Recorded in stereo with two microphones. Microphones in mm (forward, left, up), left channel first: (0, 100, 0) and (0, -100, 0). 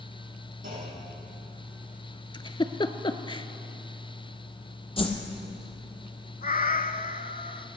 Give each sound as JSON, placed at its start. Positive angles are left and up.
{"t": 0.6, "sound": "a clunk", "side_deg": -75, "distance_m": 5.5}
{"t": 2.3, "sound": "a giggle", "side_deg": 25, "distance_m": 0.5}
{"t": 5.0, "sound": "a whoosh", "side_deg": 25, "distance_m": 1.4}
{"t": 6.4, "sound": "a cat meowing", "side_deg": 45, "distance_m": 0.5}